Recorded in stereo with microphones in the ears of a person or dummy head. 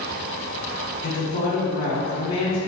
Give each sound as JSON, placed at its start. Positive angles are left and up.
{"t": 1.0, "sound": "a woman speaking", "side_deg": 65, "distance_m": 0.8}